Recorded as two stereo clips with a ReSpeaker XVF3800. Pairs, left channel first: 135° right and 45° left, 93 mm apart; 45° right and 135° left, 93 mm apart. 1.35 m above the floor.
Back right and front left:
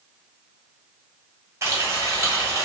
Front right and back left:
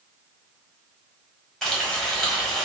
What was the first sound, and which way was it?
Frying, 35° left.